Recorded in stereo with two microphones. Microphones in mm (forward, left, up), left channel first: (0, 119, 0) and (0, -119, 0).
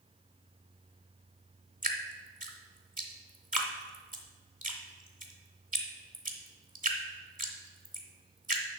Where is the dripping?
35° right (ahead or behind), 1.1 m.